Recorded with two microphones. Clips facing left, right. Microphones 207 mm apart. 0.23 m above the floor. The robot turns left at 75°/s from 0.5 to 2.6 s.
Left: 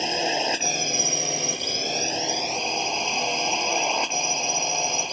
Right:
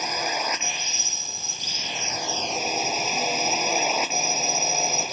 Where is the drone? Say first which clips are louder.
Left 4 dB; 155° left; by 5.1 s 5° right.